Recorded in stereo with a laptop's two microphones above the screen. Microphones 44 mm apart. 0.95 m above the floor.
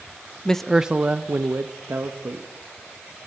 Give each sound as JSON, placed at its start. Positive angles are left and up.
{"t": 0.5, "sound": "a man speaking", "side_deg": 20, "distance_m": 0.5}